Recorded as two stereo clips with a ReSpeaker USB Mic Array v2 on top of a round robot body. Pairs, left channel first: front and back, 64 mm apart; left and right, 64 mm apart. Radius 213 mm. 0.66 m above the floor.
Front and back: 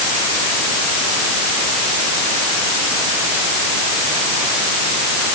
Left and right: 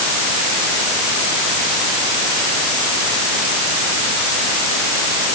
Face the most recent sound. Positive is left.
No sound to turn to.